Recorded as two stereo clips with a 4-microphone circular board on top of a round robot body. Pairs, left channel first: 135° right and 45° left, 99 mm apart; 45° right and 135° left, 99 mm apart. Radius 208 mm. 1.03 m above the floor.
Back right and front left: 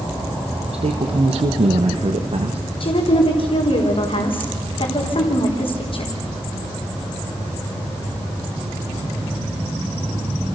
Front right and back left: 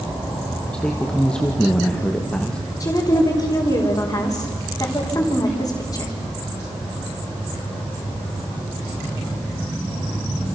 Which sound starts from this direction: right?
A woman speaking, at 2.8 s.